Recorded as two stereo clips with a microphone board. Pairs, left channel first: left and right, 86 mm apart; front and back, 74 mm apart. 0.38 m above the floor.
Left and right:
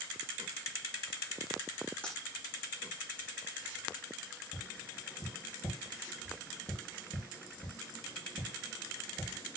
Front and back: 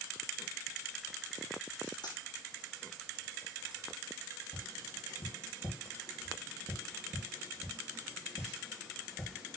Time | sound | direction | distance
2.0 | a dropped coin | 10° left | 3.5 m
4.5 | tapping | 45° left | 6.5 m